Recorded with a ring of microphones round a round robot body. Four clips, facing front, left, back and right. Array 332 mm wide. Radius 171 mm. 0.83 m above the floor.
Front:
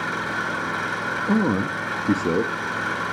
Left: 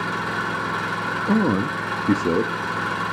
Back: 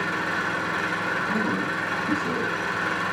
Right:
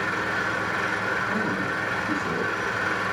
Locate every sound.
0.0 s an engine running: 85° left, 4.5 m
1.3 s a man speaking: 55° left, 1.1 m